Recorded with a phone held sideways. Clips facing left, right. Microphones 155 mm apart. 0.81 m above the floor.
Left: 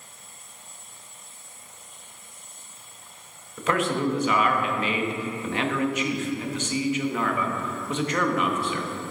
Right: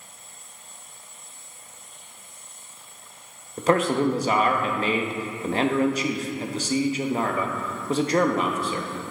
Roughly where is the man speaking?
Right.